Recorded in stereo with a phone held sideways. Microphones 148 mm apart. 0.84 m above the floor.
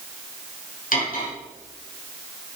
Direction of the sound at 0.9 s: 70° left (ahead or behind).